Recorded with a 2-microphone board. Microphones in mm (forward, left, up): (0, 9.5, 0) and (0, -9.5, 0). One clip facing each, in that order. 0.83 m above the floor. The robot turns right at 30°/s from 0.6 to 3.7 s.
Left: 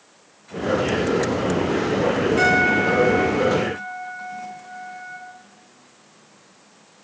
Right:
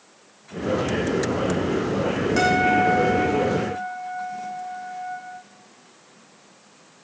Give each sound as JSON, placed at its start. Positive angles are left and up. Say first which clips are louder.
{"t": 2.4, "sound": "a guitar", "louder": "even", "azimuth_deg": -95, "distance_m": 7.0}